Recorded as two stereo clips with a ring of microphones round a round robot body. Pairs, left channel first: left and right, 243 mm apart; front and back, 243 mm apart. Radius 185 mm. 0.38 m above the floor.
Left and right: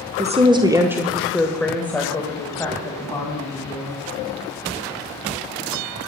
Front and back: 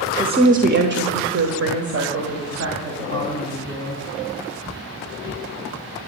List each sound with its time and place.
0.2 s a woman speaking: 120° right, 1.1 m; by 4.0 s 165° left, 4 m